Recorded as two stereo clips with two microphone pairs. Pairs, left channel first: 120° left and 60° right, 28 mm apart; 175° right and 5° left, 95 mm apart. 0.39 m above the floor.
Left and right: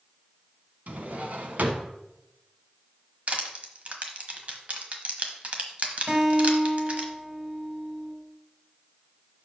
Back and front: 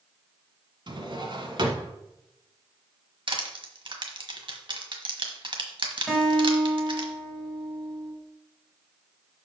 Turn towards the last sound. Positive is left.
turn(degrees=-90)